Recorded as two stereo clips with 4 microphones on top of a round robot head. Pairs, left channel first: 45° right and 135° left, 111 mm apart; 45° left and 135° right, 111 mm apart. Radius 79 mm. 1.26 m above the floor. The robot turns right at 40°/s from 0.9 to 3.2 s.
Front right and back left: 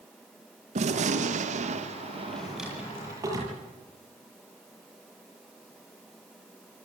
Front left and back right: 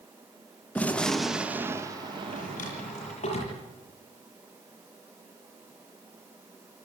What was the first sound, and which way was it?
A gunshot, 120° left.